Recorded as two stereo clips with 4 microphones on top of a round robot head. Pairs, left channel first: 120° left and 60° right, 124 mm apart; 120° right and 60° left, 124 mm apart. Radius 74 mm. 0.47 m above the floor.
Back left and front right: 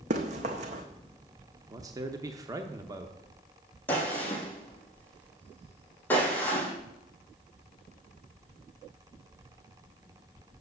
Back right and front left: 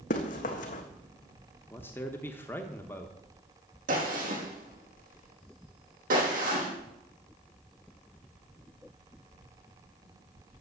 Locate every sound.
0.1 s running footsteps: 95° right, 1.6 m
1.7 s a man speaking: 70° right, 0.9 m
3.9 s a gunshot: 45° left, 3.5 m